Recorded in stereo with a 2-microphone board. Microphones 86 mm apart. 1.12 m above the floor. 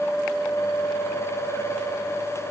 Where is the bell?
No bell in this recording.